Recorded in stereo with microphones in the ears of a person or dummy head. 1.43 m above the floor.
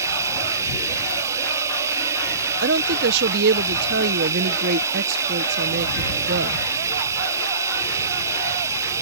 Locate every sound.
0.0 s running water: 15° right (ahead or behind)
2.6 s a woman speaking: 60° right (ahead or behind)